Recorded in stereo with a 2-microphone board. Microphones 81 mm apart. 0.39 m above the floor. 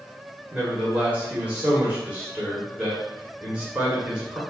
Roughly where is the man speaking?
Centre.